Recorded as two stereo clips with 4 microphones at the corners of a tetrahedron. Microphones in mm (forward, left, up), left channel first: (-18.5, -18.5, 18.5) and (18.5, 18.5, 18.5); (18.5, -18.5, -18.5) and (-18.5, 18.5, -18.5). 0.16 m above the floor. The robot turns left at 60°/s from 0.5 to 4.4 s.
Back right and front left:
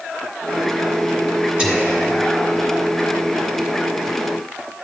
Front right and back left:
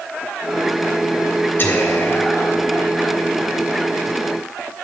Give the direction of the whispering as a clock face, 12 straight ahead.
12 o'clock.